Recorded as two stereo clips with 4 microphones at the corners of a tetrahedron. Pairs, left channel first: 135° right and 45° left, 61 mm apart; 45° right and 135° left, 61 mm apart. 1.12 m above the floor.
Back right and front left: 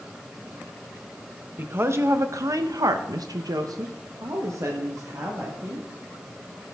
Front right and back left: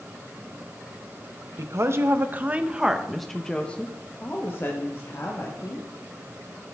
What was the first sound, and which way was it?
A woman speaking, 100° left.